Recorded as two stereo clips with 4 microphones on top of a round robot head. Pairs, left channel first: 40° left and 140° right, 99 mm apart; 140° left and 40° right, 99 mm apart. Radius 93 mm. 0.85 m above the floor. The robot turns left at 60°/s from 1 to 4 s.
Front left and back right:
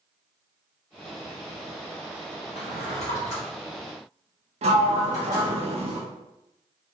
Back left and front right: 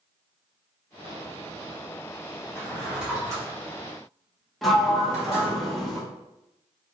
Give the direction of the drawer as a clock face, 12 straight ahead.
10 o'clock.